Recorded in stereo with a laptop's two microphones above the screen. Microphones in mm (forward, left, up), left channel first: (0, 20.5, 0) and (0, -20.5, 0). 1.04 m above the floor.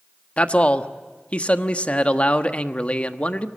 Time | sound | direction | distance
0.4 | a man speaking | 30° left (ahead or behind) | 1.3 m